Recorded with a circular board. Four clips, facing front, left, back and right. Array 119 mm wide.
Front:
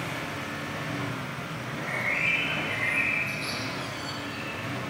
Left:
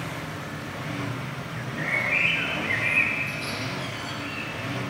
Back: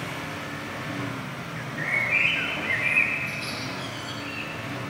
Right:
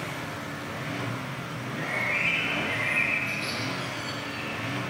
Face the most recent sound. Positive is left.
turn(degrees=135)